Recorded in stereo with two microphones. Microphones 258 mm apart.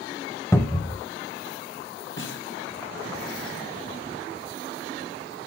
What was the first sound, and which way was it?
A cupboard door, 10° left (ahead or behind).